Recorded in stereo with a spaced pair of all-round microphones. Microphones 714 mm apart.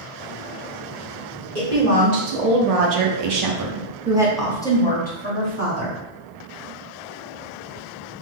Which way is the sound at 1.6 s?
65° right (ahead or behind).